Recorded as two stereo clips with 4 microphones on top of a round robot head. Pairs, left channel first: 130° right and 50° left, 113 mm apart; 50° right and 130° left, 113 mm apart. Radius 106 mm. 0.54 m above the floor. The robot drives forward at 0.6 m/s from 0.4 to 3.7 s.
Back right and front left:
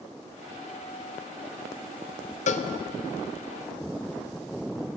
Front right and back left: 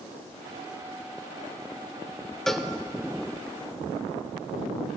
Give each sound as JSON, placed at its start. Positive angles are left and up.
{"t": 2.5, "sound": "a cowbell", "azimuth_deg": -135, "distance_m": 0.7}